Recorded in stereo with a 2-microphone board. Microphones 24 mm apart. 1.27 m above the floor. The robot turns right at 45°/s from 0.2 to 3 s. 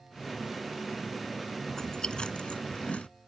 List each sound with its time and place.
1.7 s chewing: 25° left (ahead or behind); by 3.1 s 80° left